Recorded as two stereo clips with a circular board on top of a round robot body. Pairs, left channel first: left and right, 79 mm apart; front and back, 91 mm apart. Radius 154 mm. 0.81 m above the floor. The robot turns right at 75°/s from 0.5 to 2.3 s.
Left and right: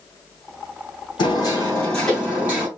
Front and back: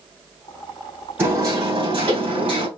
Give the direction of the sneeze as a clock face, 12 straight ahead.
No sneeze in this recording.